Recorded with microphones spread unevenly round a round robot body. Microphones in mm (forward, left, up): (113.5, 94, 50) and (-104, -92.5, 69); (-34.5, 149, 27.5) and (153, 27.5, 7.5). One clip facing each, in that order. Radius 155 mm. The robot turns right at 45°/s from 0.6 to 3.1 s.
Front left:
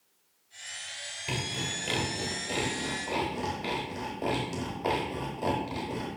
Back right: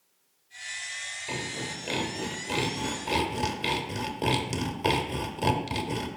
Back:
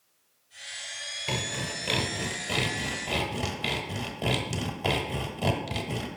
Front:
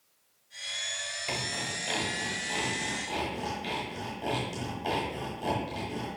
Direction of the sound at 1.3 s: 100° left.